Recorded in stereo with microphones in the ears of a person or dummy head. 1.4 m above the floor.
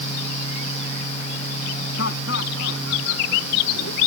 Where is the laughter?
65° left (ahead or behind).